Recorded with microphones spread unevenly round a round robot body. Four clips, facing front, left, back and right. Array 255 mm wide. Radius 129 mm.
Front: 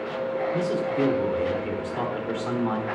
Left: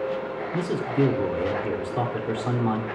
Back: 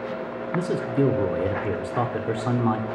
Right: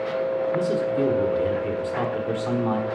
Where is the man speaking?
165° left, 1.4 m.